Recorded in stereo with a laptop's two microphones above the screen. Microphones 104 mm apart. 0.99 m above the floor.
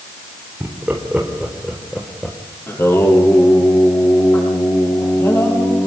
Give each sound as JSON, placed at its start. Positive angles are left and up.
{"t": 0.6, "sound": "laughter", "side_deg": -20, "distance_m": 4.0}
{"t": 2.7, "sound": "singing", "side_deg": 25, "distance_m": 9.5}